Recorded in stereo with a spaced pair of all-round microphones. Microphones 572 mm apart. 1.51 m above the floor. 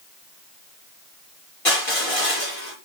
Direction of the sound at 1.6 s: 70° left (ahead or behind).